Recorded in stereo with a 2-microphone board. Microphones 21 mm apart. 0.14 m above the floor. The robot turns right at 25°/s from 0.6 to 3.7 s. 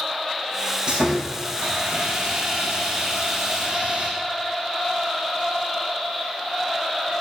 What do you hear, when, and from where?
0.9 s sawing: 135° right, 6.5 m; by 4.1 s 65° right, 6.5 m